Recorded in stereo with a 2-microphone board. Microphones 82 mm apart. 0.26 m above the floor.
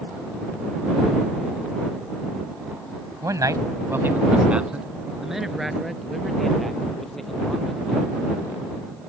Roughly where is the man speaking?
Right.